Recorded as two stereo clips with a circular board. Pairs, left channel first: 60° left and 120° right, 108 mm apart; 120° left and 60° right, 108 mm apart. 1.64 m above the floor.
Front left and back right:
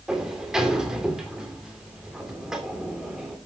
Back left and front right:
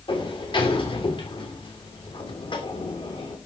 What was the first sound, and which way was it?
A sliding door, 155° left.